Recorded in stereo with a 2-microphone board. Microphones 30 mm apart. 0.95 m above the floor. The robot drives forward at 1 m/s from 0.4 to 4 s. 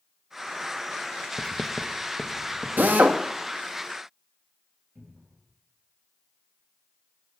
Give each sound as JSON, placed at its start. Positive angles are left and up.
{"t": 1.4, "sound": "writing", "side_deg": 30, "distance_m": 0.6}
{"t": 2.8, "sound": "a drill", "side_deg": -75, "distance_m": 0.9}
{"t": 5.0, "sound": "a cupboard door", "side_deg": -70, "distance_m": 4.5}